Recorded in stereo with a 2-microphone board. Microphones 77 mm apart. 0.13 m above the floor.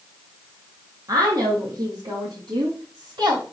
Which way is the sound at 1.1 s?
55° right (ahead or behind).